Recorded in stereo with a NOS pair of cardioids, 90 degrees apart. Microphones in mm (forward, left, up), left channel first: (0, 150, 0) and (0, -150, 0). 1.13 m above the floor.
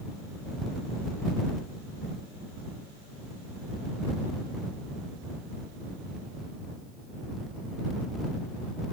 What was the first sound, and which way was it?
Only background noise.